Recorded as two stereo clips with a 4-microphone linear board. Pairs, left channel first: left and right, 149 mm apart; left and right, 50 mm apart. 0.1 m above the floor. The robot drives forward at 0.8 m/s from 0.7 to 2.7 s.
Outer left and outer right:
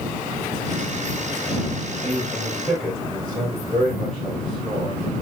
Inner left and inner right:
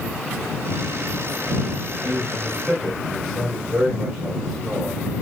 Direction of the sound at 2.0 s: 5° left (ahead or behind).